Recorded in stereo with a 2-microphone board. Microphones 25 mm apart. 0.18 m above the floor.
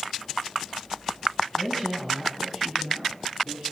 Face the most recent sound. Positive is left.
turn(degrees=-35)  # may be behind; listen again after turning